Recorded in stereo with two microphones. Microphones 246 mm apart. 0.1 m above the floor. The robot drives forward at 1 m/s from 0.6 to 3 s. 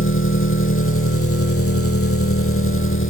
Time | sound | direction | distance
0.0 | an engine running | 55° left (ahead or behind) | 2.5 m